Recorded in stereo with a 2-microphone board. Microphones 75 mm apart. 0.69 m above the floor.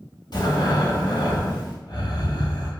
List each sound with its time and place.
0.3 s breathing: 65° left (ahead or behind), 0.8 m